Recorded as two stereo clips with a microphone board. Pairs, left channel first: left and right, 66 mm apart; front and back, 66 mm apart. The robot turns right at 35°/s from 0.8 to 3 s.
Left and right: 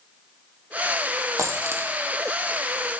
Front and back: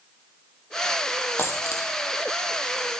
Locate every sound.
1.4 s a dropped coin: 55° right, 1.4 m; by 1.9 s 35° right, 1.4 m